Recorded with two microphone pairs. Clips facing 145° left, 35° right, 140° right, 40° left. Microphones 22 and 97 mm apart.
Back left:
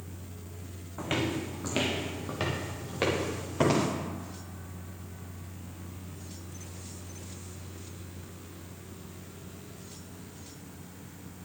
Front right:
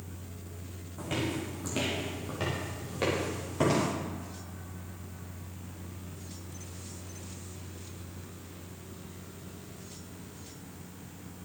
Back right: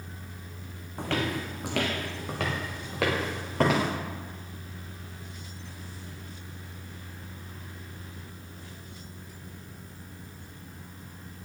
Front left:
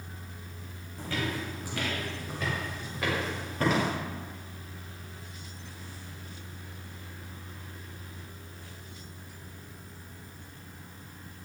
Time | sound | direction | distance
1.0 | footsteps | 165° right | 1.8 m